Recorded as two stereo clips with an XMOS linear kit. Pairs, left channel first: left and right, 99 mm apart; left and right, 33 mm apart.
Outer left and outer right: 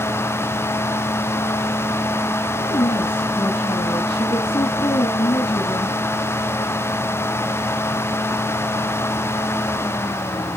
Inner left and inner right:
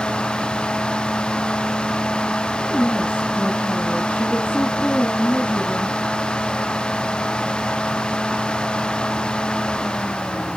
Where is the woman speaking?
50° left (ahead or behind), 2 m.